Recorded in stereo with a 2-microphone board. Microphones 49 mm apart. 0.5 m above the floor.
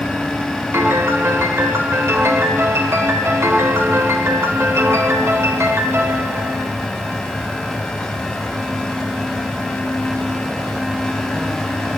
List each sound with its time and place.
0.7 s a piano: 65° right (ahead or behind), 0.7 m